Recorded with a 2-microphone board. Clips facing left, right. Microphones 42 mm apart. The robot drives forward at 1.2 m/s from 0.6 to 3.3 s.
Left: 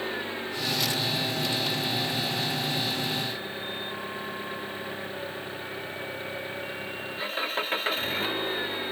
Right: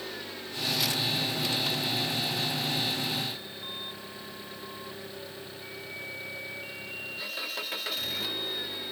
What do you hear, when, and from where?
0.0 s an engine running: 30° left (ahead or behind); by 8.9 s 35° left (ahead or behind)